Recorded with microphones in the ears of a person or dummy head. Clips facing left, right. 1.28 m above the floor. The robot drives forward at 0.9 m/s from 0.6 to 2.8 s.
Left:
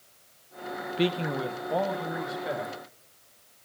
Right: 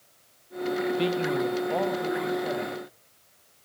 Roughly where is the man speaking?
Left.